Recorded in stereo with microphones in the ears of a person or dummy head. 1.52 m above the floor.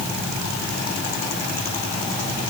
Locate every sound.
Only background noise.